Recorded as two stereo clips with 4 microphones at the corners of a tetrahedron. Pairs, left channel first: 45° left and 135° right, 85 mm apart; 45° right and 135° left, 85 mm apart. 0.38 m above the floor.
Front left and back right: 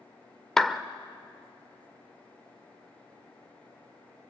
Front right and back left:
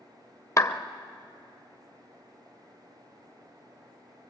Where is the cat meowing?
I don't hear a cat meowing.